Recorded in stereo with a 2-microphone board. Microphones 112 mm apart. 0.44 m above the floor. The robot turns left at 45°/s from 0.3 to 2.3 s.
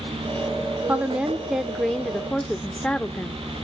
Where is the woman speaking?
15° right (ahead or behind), 0.7 m; by 3.4 s 10° left (ahead or behind), 0.7 m.